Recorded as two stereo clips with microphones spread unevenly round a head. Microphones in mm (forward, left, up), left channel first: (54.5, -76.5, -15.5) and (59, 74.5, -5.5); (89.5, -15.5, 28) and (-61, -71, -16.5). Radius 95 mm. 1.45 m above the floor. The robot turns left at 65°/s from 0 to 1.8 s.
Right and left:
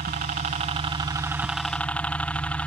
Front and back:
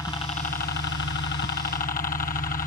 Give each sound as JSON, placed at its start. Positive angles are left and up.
{"t": 0.0, "sound": "a helicopter", "azimuth_deg": 105}